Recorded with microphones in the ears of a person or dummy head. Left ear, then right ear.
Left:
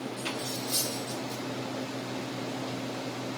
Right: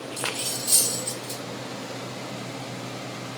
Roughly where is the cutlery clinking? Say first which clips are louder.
Right 7 dB; right.